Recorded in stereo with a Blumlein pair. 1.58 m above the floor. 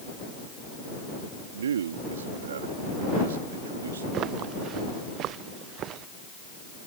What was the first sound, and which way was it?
A man speaking, 65° right.